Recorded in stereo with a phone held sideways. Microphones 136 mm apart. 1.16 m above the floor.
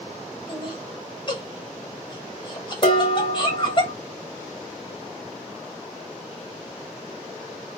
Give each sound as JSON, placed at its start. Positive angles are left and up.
{"t": 0.5, "sound": "laughter", "side_deg": 35, "distance_m": 2.0}
{"t": 2.8, "sound": "dishes clattering", "side_deg": 40, "distance_m": 1.7}